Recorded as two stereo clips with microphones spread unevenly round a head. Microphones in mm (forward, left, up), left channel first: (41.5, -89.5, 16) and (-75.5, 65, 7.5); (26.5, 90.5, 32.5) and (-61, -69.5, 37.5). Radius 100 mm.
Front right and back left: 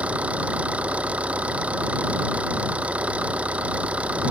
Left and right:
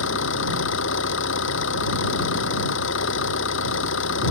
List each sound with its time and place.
0.0 s an engine running: 45° left